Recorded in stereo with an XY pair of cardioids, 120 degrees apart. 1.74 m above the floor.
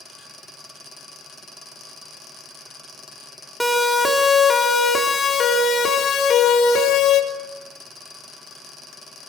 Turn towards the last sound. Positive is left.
turn(degrees=55)